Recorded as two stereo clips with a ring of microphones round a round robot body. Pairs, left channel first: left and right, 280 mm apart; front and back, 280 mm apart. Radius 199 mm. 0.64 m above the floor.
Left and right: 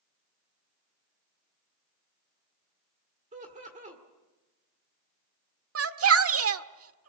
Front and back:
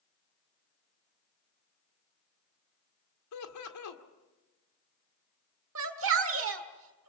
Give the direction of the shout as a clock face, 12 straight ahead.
4 o'clock.